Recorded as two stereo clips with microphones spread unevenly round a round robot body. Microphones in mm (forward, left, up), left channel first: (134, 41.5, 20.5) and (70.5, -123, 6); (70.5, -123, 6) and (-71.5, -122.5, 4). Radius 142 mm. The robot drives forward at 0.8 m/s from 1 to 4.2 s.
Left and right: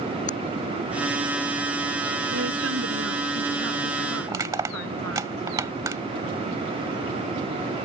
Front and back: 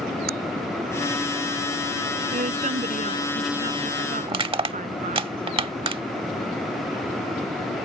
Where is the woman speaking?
150° right; by 5.3 s 155° right.